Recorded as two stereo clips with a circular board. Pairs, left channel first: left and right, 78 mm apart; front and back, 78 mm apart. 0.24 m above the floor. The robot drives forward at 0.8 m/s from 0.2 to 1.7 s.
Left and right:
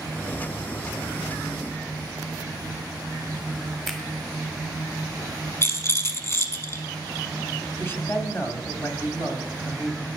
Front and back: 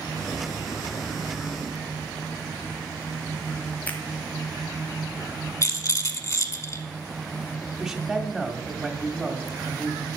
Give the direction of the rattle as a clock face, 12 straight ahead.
11 o'clock.